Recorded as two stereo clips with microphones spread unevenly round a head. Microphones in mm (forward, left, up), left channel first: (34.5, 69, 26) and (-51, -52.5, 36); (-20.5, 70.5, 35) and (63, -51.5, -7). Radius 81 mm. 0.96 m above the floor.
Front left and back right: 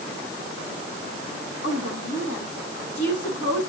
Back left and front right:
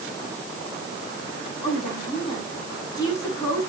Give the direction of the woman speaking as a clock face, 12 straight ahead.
10 o'clock.